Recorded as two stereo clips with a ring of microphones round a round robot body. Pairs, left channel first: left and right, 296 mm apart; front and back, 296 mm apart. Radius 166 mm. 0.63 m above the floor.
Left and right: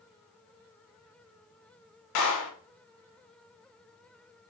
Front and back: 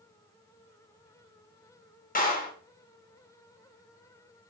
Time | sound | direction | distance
2.1 | a clap | 65° left | 2.5 m